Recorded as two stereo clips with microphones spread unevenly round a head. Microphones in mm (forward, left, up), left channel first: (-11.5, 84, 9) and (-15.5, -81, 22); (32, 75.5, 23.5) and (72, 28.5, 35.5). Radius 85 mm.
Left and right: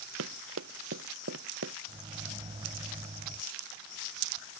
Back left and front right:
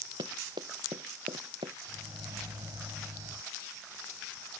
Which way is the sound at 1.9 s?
30° right.